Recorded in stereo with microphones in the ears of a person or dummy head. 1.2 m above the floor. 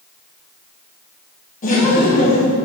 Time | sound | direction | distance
1.6 | laughter | 40° left (ahead or behind) | 1.5 m